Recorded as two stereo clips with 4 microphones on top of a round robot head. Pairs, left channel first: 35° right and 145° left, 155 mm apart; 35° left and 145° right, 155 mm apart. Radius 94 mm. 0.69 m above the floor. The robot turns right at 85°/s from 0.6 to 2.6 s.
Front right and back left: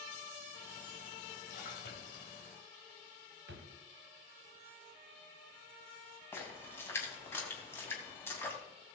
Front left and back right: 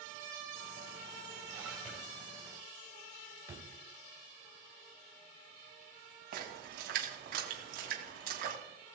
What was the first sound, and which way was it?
A splash, 75° right.